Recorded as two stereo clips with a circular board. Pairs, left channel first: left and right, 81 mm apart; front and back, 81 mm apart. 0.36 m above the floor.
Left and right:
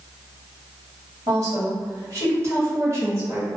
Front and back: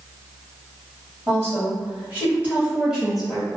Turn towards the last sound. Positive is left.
turn(degrees=-85)